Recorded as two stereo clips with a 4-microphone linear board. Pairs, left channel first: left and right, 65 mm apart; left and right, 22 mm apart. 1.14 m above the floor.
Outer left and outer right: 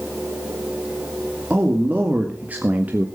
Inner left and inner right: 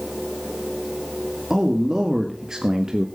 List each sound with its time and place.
1.5 s a man speaking: 25° right (ahead or behind), 2.5 m; by 3.1 s 30° right (ahead or behind), 1.2 m